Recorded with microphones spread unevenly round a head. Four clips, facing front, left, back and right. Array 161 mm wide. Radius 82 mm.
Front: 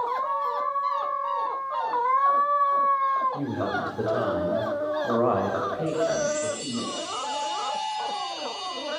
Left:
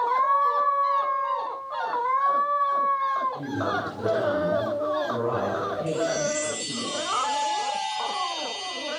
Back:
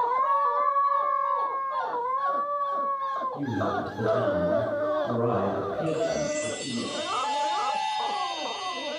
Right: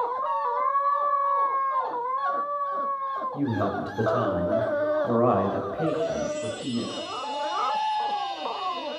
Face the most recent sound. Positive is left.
turn(degrees=140)